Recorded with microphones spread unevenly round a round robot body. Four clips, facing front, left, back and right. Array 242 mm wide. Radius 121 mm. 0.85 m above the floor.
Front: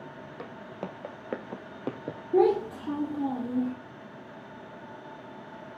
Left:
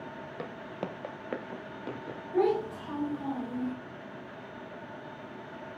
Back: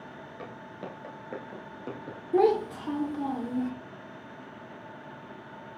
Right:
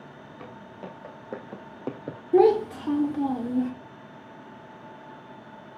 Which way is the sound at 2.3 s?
80° right.